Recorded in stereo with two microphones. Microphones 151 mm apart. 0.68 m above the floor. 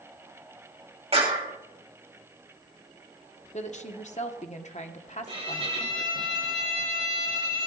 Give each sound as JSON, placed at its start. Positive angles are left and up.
{"t": 1.1, "sound": "a clap", "side_deg": -40, "distance_m": 4.0}
{"t": 3.5, "sound": "a woman speaking", "side_deg": 50, "distance_m": 1.1}
{"t": 5.3, "sound": "a violin", "side_deg": -40, "distance_m": 3.0}